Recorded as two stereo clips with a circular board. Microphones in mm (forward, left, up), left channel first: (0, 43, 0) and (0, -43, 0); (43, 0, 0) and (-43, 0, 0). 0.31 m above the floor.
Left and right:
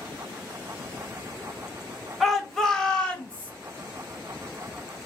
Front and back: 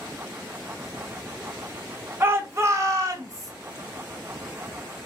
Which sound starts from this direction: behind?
A shout, at 2.2 s.